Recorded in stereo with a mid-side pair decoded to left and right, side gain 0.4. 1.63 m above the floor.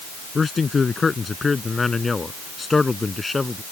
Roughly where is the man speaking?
Ahead left.